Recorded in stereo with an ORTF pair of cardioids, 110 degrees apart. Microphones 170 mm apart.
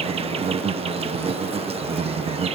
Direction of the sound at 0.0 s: 35° right.